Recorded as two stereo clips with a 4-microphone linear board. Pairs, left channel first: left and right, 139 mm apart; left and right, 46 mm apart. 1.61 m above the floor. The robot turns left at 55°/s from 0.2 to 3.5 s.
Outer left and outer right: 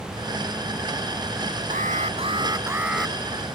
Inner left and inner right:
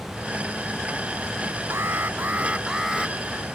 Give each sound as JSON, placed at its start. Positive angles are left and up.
{"t": 1.7, "sound": "an alarm", "azimuth_deg": -105}